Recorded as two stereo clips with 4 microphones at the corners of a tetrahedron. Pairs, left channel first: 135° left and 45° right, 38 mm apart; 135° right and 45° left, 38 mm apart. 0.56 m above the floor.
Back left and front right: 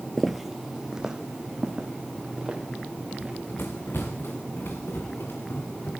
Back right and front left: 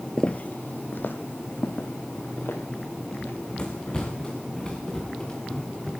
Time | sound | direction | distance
0.2 | footsteps | 150° right | 0.5 m
3.1 | running footsteps | 160° left | 2.5 m